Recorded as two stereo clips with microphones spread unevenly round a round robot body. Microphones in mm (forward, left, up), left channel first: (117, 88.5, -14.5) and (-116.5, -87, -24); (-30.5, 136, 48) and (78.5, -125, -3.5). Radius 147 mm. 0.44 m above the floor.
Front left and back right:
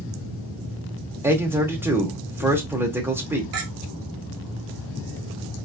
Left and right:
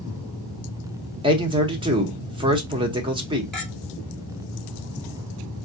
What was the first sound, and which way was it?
A man speaking, 75° right.